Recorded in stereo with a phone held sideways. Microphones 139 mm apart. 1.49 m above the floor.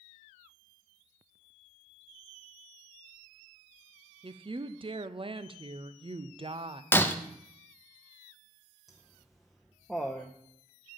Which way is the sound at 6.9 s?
15° left (ahead or behind).